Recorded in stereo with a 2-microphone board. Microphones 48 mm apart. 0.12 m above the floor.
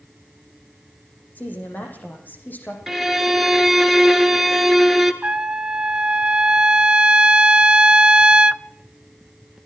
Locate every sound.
1.4 s a woman speaking: 40° left (ahead or behind), 7 m
2.9 s a violin: centre (ahead or behind), 1.8 m
5.2 s a trumpet: 20° right (ahead or behind), 0.6 m